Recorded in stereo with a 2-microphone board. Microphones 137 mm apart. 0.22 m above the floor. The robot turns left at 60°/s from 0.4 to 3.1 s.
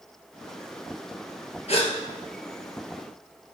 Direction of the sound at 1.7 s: 55° left (ahead or behind).